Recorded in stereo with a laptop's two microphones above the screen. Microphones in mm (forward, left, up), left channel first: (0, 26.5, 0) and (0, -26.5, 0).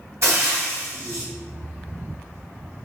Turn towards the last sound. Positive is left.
turn(degrees=-60)  # may be behind; listen again after turning